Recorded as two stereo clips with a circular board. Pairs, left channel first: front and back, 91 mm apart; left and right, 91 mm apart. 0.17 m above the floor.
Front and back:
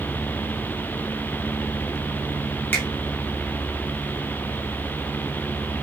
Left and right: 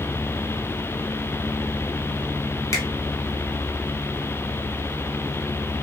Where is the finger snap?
60° left, 1.1 m.